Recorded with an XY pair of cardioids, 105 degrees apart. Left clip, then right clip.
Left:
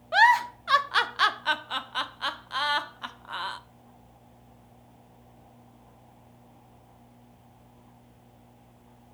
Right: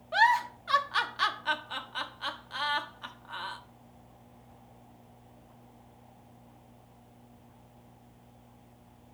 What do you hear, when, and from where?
0.1 s a giggle: 35° left, 0.6 m